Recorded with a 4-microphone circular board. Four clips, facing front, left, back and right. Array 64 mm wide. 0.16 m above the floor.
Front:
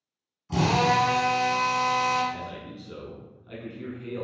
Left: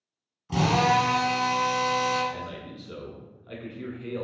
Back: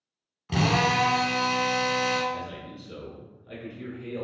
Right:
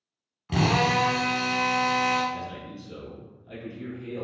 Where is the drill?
145° right, 1.1 m.